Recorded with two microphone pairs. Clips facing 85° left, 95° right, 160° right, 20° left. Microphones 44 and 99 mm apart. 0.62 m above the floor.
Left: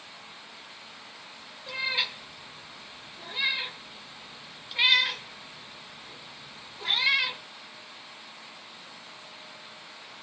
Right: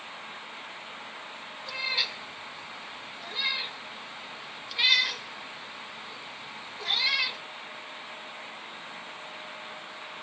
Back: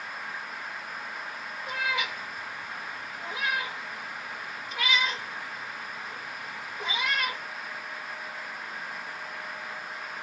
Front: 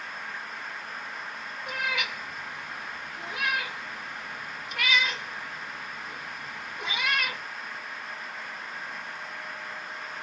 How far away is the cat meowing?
About 1.4 m.